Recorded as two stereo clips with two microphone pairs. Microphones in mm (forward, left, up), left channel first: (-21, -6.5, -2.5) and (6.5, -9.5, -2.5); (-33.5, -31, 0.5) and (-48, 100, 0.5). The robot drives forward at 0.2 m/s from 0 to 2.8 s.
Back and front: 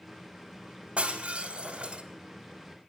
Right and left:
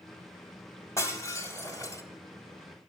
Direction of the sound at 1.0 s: 20° right.